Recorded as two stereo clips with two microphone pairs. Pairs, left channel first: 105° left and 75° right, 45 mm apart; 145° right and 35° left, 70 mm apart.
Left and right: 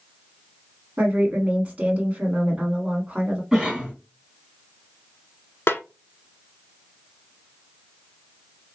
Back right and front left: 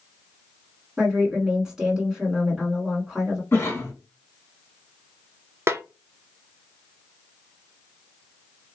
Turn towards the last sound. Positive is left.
turn(degrees=90)